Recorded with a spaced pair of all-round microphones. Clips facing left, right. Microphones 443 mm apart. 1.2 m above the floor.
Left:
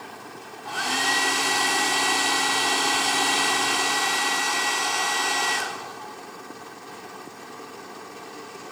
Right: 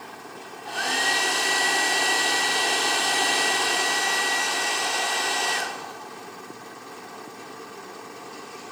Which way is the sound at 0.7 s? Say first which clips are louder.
Even; 20° left (ahead or behind).